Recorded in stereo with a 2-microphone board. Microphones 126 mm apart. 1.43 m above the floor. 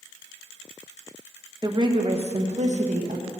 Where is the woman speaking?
35° right (ahead or behind), 1.1 m; by 3.3 s 80° right, 1.4 m.